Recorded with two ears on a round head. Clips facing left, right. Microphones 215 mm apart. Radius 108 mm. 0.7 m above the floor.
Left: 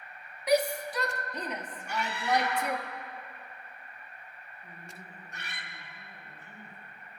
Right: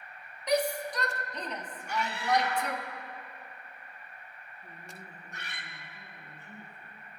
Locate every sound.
0.5 s a shout: 5° left (ahead or behind), 1.0 m
1.9 s a scream: 50° left (ahead or behind), 2.0 m
4.6 s a woman speaking: 25° right (ahead or behind), 1.3 m